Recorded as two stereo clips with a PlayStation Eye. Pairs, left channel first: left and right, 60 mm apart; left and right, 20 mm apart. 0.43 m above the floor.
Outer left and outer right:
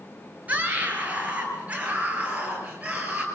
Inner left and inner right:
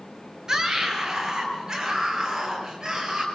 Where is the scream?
25° right (ahead or behind), 7 m.